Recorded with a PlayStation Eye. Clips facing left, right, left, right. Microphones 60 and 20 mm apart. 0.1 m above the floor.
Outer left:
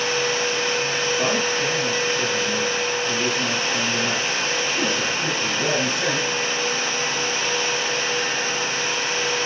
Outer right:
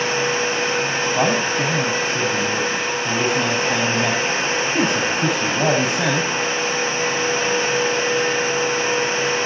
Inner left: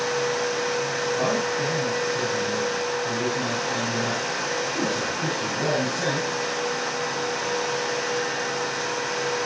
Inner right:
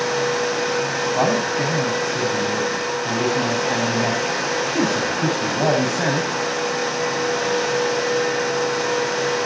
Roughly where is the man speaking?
Right.